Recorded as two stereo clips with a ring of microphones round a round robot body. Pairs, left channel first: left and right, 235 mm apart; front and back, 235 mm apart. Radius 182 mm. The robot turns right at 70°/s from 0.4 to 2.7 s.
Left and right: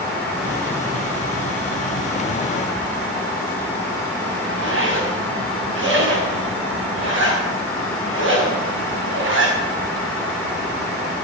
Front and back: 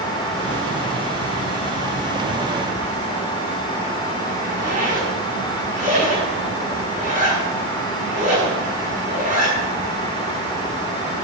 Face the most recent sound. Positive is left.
turn(degrees=-120)